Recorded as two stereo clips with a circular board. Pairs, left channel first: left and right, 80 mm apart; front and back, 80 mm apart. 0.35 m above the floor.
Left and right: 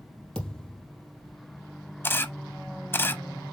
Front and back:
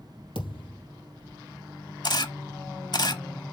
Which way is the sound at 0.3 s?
5° left.